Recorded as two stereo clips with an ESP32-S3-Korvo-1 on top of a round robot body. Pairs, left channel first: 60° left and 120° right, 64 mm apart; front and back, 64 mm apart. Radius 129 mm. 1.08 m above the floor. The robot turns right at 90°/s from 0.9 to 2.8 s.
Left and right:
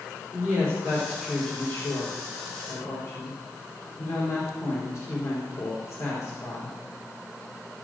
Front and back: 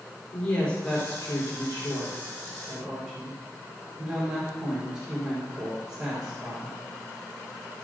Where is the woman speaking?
70° right, 4 m; by 6.8 s 100° left, 4 m.